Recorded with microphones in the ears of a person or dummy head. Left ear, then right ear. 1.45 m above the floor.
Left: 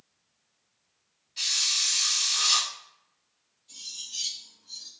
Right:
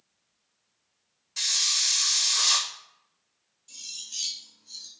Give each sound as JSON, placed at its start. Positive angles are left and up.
{"t": 1.4, "sound": "a hiss", "side_deg": -55, "distance_m": 1.5}
{"t": 3.7, "sound": "cutlery clinking", "side_deg": -40, "distance_m": 2.5}